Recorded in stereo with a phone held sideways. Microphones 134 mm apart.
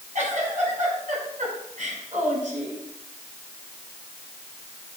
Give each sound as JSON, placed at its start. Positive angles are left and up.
{"t": 0.1, "sound": "a giggle", "side_deg": -65, "distance_m": 6.0}